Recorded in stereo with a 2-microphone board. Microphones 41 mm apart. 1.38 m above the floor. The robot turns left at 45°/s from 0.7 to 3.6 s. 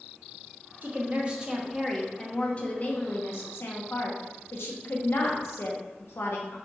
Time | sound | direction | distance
0.8 | a woman speaking | 135° right | 1.0 m